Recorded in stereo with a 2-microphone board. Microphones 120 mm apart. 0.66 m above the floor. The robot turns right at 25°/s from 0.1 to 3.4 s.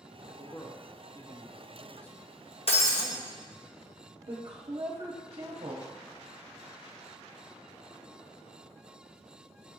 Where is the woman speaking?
50° right (ahead or behind), 0.9 m.